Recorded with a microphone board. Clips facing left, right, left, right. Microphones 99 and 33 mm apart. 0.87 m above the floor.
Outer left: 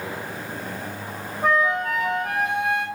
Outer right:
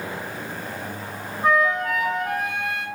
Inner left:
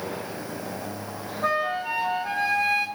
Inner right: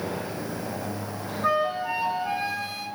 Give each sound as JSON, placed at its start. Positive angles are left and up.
{"t": 1.4, "sound": "a flute", "side_deg": 70, "distance_m": 1.1}